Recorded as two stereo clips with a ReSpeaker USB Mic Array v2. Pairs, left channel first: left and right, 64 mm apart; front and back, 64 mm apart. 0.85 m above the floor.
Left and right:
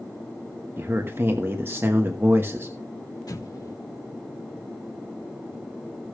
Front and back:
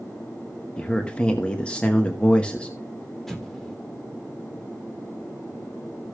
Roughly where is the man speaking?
Ahead right.